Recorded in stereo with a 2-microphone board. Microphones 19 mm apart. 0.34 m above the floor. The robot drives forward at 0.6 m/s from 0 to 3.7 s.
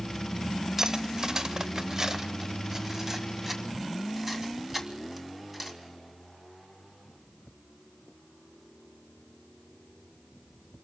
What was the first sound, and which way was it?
Cutlery clinking, 30° right (ahead or behind).